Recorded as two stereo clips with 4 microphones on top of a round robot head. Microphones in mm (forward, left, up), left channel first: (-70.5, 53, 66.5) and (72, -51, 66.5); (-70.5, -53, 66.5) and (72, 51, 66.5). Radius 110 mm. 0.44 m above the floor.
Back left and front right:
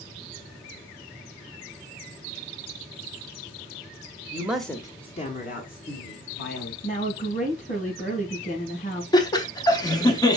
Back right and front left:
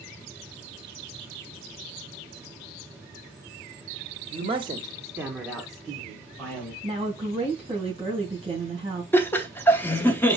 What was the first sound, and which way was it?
A man speaking, 20° left.